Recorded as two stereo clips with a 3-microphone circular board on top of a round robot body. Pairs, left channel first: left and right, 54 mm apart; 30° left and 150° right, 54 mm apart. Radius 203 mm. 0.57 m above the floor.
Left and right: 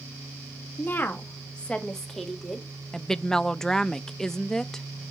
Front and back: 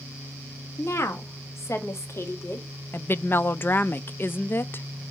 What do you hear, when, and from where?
0.8 s a woman speaking: 50° left, 1.7 m; by 2.7 s 5° right, 2 m
2.9 s a woman speaking: 15° left, 0.7 m